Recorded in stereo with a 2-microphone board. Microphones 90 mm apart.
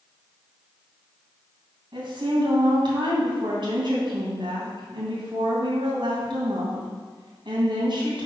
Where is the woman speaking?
65° right (ahead or behind), 3 m.